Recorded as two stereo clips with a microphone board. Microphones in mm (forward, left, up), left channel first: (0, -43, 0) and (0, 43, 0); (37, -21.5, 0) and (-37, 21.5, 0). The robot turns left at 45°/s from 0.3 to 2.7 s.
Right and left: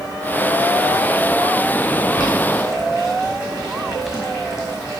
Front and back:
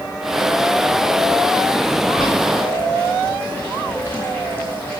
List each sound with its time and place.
2.1 s boiling: 120° right, 3 m; by 5.0 s 145° right, 3 m